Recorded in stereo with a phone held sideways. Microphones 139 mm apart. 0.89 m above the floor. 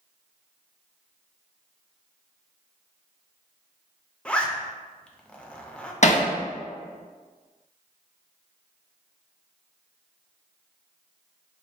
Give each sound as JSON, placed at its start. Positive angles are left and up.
{"t": 4.2, "sound": "a zipper", "side_deg": 10, "distance_m": 0.5}
{"t": 6.0, "sound": "hammering", "side_deg": 55, "distance_m": 0.6}